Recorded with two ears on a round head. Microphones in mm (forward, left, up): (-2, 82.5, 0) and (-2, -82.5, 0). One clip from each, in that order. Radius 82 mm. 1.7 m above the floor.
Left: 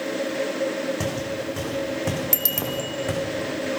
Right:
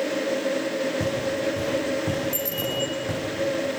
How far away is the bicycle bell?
About 2.5 m.